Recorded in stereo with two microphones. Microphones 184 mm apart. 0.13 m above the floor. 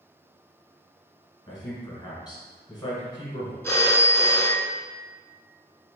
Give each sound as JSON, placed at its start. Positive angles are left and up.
{"t": 1.5, "sound": "a man speaking", "side_deg": 20, "distance_m": 1.4}
{"t": 3.6, "sound": "a phone ringing", "side_deg": 10, "distance_m": 0.6}